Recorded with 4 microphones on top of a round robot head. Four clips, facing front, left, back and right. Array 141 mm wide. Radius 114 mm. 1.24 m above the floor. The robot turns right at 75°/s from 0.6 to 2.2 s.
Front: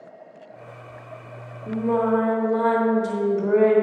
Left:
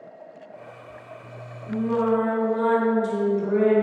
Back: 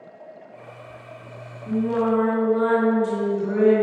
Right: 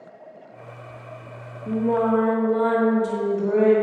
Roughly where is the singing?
Right.